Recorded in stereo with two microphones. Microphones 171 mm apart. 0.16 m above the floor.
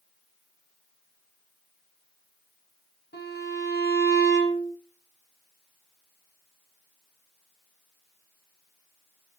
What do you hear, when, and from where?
3.1 s a violin: 80° left, 6.5 m